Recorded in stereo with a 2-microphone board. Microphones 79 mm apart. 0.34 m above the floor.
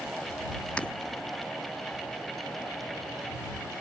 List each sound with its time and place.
0.8 s breaking glass: 15° left (ahead or behind)